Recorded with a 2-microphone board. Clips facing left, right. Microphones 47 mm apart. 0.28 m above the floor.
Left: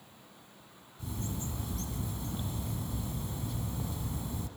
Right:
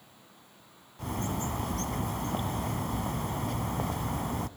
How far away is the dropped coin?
I don't hear a dropped coin.